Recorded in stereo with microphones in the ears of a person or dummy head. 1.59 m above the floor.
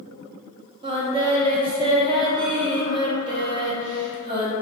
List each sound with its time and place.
0.8 s singing: 25° right (ahead or behind), 0.6 m